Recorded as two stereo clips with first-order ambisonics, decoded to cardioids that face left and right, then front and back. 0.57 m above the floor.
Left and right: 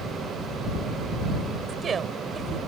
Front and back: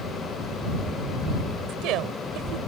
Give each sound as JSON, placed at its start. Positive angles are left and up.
{"t": 1.7, "sound": "a woman speaking", "azimuth_deg": -155}